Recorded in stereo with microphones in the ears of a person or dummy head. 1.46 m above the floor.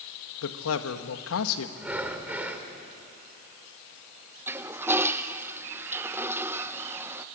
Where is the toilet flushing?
15° right (ahead or behind), 0.8 m.